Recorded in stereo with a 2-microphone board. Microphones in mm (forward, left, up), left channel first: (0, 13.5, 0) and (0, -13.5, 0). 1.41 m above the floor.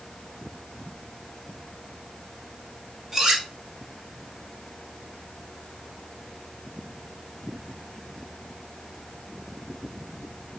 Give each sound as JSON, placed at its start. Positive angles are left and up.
{"t": 3.1, "sound": "cutlery clinking", "side_deg": -15, "distance_m": 1.7}